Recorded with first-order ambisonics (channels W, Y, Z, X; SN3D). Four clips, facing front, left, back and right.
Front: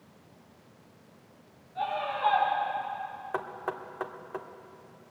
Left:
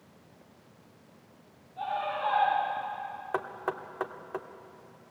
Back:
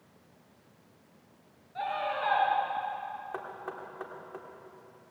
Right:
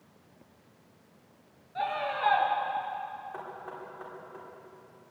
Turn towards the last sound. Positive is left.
turn(degrees=65)